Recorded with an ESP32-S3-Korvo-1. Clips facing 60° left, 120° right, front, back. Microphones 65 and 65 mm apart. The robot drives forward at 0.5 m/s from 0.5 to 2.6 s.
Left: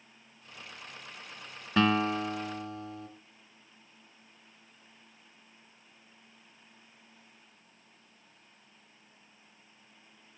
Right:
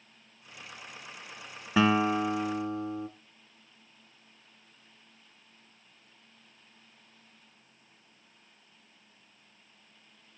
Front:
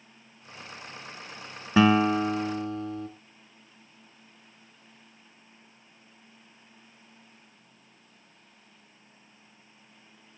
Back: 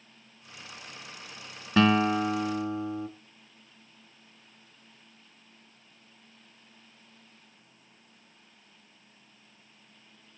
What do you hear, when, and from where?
1.8 s a guitar: 55° right, 0.7 m; by 3.1 s 145° right, 0.8 m